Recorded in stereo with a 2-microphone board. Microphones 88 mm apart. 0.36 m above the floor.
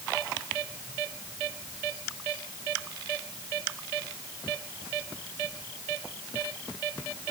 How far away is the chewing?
I don't hear chewing.